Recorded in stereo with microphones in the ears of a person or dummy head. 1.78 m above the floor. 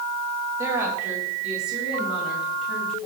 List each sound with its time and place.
0.6 s a woman speaking: 15° right (ahead or behind), 3 m; by 3.1 s centre (ahead or behind), 5.5 m